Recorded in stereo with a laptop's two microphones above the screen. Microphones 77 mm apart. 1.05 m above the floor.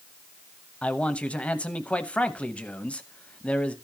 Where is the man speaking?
15° left (ahead or behind), 0.9 m.